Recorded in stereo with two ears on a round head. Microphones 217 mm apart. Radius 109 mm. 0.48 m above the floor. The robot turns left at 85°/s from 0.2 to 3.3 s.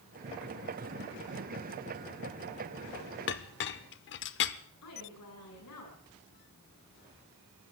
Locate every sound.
3.3 s a clink: 50° left (ahead or behind), 0.7 m
4.8 s a woman speaking: 80° left, 8.5 m